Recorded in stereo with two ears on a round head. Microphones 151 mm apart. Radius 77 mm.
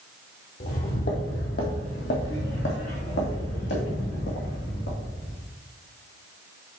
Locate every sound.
0.6 s footsteps: 55° left (ahead or behind), 1.8 m; by 5.4 s 70° left (ahead or behind), 4 m